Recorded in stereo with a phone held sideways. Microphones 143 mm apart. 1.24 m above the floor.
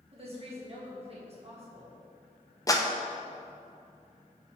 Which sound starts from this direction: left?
A clap, at 2.7 s.